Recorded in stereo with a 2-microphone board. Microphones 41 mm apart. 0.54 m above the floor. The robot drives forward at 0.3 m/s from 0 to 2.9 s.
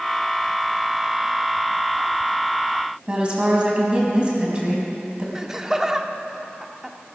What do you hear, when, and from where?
3.1 s a woman speaking: 20° right (ahead or behind), 4 m
5.3 s laughter: 10° right (ahead or behind), 0.9 m